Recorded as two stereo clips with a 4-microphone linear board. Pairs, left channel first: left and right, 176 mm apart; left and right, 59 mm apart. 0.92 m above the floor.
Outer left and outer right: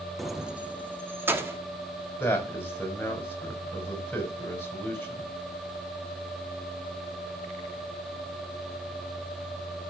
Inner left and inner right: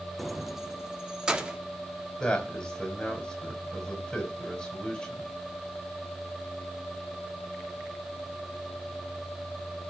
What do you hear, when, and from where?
0.2 s keys jangling: centre (ahead or behind), 0.5 m; by 1.6 s 15° right (ahead or behind), 1.6 m
2.2 s a man speaking: 10° left (ahead or behind), 5 m